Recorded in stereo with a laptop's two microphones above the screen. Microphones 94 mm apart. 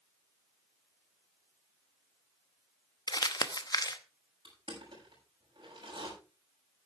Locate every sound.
3.1 s crumpling: 45° left (ahead or behind), 0.8 m
4.5 s crushing: 65° right (ahead or behind), 7.5 m